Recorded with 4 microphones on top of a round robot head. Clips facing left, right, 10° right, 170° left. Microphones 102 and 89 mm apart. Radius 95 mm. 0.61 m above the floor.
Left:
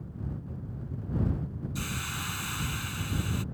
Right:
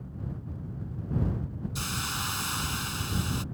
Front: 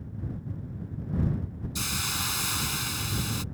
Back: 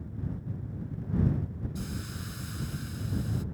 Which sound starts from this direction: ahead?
A hiss, at 1.8 s.